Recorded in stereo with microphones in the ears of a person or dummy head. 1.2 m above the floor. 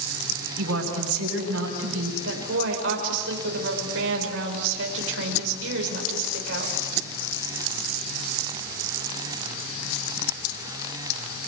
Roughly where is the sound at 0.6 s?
Right.